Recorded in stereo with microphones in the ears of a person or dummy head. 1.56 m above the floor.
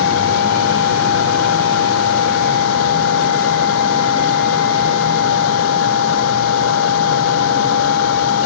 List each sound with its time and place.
0.0 s a machine running: 85° left